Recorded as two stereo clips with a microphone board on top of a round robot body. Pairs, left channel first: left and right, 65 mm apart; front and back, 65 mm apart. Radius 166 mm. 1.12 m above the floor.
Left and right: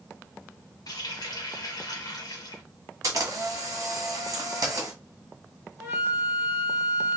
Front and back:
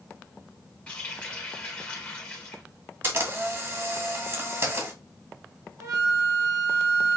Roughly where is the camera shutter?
Behind right.